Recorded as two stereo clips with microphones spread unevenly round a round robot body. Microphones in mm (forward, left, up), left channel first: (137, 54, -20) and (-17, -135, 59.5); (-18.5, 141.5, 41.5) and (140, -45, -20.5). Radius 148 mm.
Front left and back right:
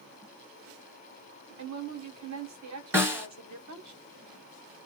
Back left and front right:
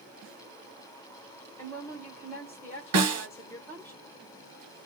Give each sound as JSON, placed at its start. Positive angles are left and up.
{"t": 1.6, "sound": "a woman speaking", "azimuth_deg": -140, "distance_m": 1.8}
{"t": 2.9, "sound": "a snare drum", "azimuth_deg": -50, "distance_m": 1.5}